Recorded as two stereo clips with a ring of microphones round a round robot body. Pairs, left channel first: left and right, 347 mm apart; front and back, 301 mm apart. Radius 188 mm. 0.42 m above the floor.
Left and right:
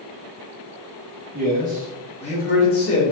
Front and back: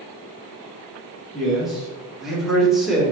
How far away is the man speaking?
About 1.4 m.